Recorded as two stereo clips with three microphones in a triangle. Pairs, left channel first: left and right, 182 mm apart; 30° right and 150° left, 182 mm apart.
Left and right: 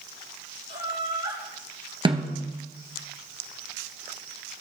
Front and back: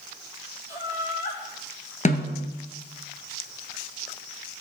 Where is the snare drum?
40° right, 1.5 m.